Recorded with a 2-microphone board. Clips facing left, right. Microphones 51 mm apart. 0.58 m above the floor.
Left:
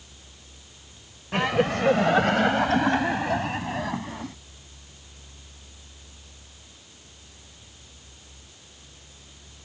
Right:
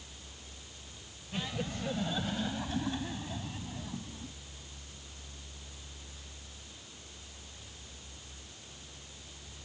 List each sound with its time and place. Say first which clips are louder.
1.3 s laughter: left 15 dB; 70° left (ahead or behind)